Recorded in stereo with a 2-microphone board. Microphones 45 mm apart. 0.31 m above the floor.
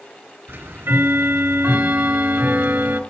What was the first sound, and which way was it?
Ticking, 65° right (ahead or behind).